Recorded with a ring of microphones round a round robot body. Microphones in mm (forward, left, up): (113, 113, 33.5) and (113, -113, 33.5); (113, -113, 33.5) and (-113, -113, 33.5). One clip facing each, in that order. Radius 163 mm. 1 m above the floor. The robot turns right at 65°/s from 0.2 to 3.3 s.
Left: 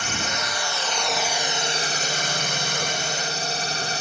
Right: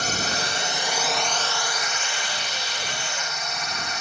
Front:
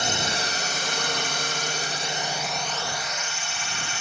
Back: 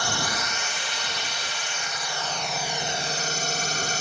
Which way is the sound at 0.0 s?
60° right.